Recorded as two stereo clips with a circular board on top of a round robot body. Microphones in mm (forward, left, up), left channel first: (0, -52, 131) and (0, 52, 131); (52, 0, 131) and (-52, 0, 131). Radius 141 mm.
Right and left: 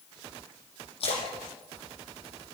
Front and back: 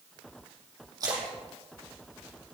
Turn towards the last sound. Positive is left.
turn(degrees=-120)